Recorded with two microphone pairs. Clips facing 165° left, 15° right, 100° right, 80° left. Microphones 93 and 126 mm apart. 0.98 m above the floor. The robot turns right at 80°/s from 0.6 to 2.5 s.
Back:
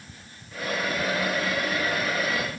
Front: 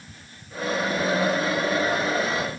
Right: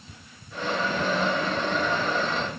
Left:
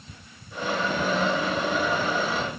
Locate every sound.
Only background noise.